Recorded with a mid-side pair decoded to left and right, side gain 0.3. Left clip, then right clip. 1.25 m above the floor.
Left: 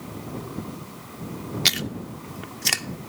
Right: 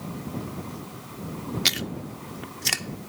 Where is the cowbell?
No cowbell in this recording.